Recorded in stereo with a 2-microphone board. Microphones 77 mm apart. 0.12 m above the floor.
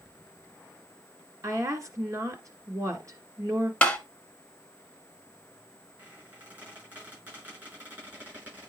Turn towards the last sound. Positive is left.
turn(degrees=-30)  # may be behind; listen again after turning